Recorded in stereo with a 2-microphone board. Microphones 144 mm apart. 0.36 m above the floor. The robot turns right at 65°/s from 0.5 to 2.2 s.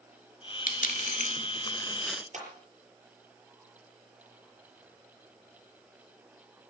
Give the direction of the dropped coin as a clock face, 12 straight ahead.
9 o'clock.